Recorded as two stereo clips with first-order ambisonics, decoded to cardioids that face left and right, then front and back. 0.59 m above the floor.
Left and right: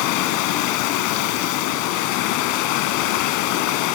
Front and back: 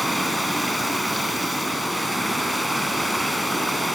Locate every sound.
0.0 s running water: 90° left, 1.9 m